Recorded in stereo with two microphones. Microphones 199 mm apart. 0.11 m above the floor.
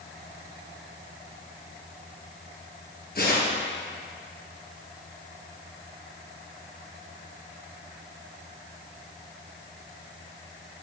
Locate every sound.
3.1 s tearing paper: 50° left (ahead or behind), 2 m